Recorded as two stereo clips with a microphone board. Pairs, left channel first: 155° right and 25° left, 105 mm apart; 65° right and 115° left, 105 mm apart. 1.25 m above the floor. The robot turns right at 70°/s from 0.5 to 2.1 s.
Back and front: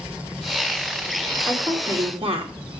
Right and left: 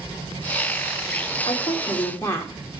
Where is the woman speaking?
45° right, 4 m; by 2.5 s straight ahead, 4 m.